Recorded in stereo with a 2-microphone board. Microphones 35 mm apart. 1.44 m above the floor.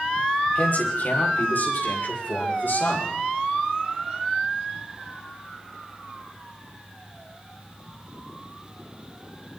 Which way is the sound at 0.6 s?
50° left (ahead or behind).